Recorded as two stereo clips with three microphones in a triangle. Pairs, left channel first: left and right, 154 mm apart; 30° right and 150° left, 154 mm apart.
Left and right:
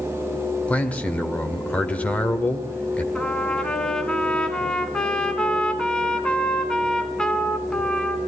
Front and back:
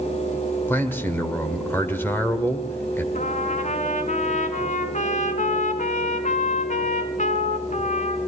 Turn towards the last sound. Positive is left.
turn(degrees=5)